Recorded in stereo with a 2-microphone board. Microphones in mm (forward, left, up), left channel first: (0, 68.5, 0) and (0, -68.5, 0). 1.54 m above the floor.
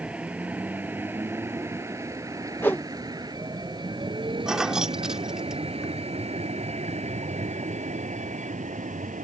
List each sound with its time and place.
0.0 s a vehicle: 10° right (ahead or behind); by 9.2 s 65° right (ahead or behind)
2.6 s a whoosh: 15° left (ahead or behind)
4.5 s keys jangling: 5° right (ahead or behind)